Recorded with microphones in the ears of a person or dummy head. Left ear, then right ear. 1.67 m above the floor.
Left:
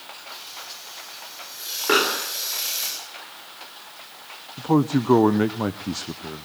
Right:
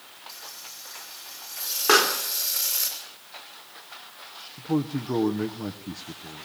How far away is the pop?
About 3 m.